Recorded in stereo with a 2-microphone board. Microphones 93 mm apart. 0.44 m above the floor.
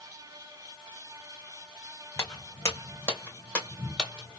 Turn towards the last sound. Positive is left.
turn(degrees=0)  # may be behind; listen again after turning